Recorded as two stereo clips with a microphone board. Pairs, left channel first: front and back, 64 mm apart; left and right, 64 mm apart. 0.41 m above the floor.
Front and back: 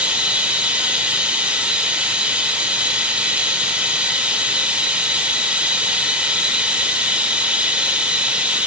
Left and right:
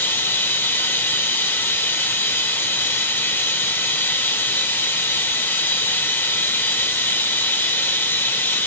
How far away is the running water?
About 1.4 m.